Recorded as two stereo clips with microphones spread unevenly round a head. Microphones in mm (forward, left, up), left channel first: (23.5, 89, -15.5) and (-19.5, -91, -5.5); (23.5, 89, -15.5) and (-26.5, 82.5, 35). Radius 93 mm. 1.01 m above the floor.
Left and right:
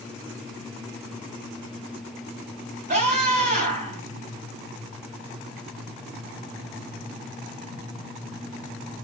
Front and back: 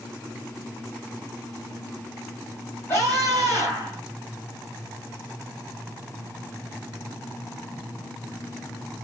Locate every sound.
2.9 s a scream: 50° right, 5.5 m